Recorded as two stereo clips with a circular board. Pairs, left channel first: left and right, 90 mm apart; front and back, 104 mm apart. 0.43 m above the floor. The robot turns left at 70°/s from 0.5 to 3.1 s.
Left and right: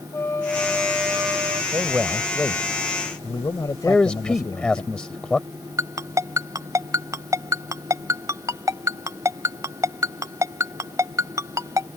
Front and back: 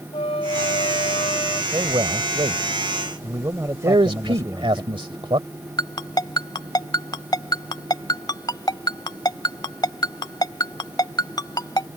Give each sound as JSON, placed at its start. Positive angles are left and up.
{"t": 0.1, "sound": "a flute", "azimuth_deg": 25}
{"t": 1.7, "sound": "a man speaking", "azimuth_deg": -140}
{"t": 3.8, "sound": "a man speaking", "azimuth_deg": 165}
{"t": 5.8, "sound": "a ringtone", "azimuth_deg": -40}